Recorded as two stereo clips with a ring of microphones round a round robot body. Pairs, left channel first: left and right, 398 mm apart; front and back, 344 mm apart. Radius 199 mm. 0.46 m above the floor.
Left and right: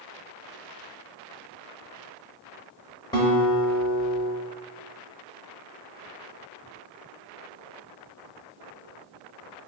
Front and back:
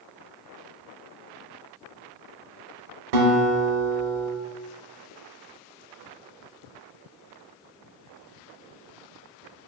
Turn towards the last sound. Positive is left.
turn(degrees=170)